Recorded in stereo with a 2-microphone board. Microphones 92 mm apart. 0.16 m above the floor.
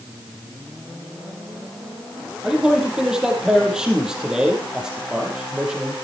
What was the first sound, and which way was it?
A man speaking, 10° right (ahead or behind).